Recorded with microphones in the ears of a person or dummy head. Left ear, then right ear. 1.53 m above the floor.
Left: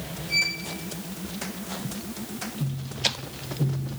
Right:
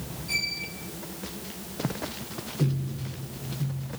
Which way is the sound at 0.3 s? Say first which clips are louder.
Left 4 dB; 80° right.